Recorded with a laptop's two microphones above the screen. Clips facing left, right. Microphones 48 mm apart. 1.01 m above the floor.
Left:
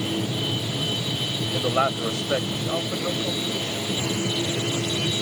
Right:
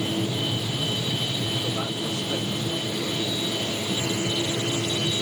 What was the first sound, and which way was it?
A man speaking, 80° left.